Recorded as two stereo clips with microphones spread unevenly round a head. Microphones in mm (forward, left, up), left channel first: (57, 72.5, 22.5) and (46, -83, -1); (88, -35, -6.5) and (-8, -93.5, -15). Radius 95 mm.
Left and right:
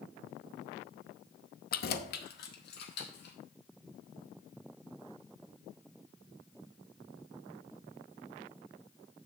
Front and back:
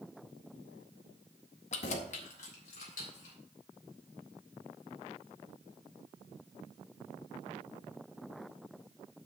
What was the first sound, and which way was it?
Keys jangling, 65° left.